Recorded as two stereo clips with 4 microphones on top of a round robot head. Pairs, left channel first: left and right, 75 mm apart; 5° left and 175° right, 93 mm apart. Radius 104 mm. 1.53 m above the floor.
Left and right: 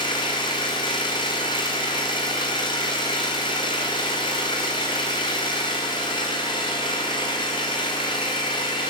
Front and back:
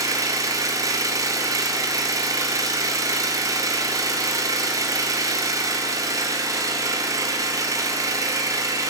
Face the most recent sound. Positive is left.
turn(degrees=135)